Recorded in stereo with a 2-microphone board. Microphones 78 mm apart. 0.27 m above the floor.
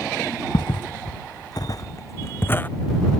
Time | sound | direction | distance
0.5 | footsteps | 80° left | ?